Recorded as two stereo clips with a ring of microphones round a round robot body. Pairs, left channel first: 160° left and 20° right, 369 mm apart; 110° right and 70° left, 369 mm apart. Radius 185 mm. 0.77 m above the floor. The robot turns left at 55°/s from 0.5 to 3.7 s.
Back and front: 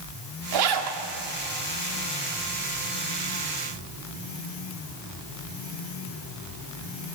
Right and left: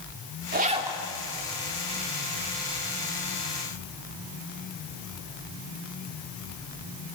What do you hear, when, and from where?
0.5 s a zipper: 5° left, 2.5 m; by 1.0 s 20° right, 2.5 m